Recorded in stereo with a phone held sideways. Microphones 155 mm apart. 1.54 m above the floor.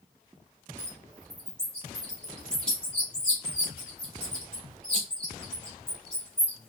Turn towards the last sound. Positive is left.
turn(degrees=10)  # may be behind; listen again after turning